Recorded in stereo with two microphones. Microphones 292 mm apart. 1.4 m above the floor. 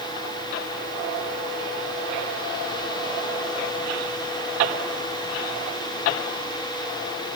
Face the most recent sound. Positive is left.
No sound to turn to.